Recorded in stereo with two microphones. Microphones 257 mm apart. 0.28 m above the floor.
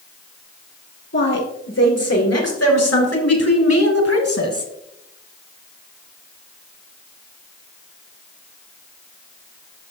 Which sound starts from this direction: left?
A woman speaking, at 1.1 s.